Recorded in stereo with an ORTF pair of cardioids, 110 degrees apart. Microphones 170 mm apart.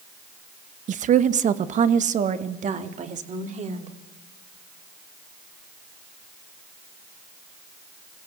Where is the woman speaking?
50° right, 0.9 m; by 4.0 s 45° right, 4 m.